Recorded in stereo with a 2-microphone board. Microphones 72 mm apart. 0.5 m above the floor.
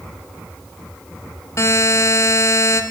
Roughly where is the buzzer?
Left.